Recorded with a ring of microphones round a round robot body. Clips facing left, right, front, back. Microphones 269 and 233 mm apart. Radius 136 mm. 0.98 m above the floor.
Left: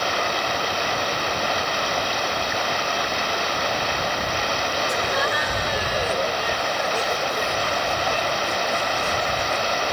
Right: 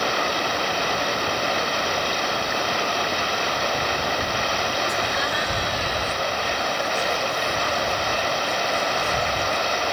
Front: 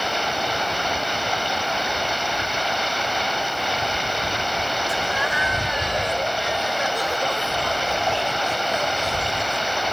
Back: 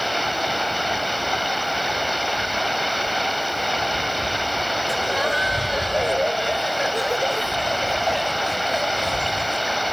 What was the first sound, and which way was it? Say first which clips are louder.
Laughter: left 2 dB, back 3 dB; 135° left.